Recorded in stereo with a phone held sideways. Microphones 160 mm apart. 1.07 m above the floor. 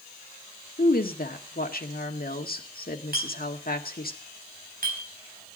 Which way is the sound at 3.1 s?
65° right (ahead or behind).